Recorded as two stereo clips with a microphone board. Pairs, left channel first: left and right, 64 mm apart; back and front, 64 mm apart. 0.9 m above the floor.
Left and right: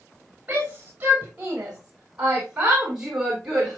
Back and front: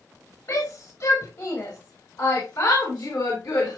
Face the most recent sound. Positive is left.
turn(degrees=-175)